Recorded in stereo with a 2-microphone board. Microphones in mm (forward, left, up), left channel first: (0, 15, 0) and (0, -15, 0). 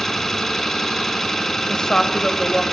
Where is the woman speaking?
25° left (ahead or behind), 2 m.